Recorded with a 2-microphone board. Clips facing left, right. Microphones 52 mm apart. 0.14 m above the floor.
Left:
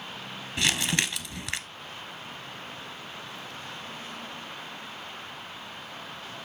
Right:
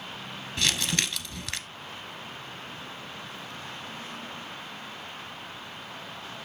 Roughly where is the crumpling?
Centre.